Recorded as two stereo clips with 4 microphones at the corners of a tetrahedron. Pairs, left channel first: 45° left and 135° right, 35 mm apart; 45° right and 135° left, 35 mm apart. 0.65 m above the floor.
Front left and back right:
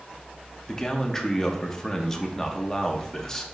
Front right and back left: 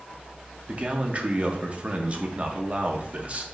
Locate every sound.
0.7 s a man speaking: 110° left, 0.7 m